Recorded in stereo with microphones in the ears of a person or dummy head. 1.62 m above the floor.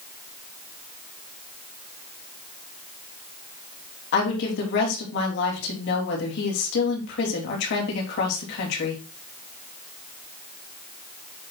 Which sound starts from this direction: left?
A woman speaking, at 4.1 s.